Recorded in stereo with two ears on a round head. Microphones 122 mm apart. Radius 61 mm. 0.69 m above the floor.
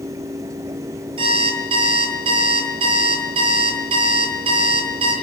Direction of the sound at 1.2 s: 35° right (ahead or behind).